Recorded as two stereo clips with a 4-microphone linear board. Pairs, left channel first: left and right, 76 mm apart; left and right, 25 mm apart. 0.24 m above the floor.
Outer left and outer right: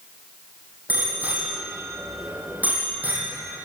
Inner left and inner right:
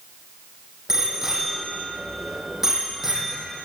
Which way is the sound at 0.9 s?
20° right (ahead or behind).